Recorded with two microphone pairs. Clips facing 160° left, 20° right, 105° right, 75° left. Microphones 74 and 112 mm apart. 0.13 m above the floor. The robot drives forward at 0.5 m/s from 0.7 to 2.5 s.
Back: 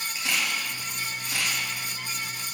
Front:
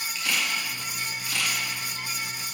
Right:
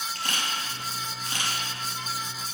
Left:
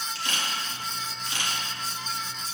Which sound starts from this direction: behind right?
A camera shutter, at 0.1 s.